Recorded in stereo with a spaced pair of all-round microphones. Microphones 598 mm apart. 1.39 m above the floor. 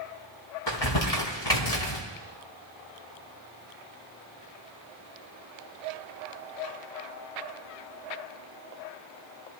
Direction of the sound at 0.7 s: 45° left (ahead or behind).